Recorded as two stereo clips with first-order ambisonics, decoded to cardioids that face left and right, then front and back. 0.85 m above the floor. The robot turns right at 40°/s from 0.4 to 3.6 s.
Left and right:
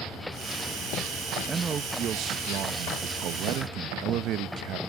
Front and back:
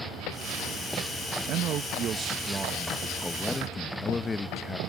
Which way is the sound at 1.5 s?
155° right.